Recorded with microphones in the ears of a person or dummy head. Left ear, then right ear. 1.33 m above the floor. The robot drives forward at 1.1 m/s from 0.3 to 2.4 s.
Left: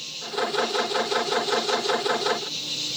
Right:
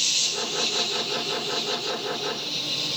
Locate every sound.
0.0 s an insect: 55° right (ahead or behind); by 3.0 s 20° right (ahead or behind)